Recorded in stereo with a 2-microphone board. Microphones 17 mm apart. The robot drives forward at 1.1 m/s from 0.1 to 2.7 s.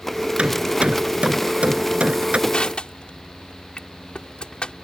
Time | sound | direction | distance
0.4 | hammering | 90° right | ?
2.5 | crushing | 70° left (ahead or behind) | ?